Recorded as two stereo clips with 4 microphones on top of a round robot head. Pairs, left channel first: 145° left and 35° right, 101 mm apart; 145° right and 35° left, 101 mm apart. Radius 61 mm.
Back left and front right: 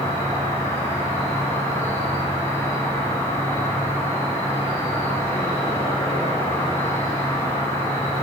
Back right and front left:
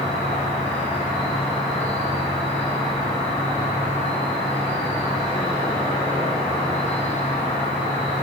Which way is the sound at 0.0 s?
155° right.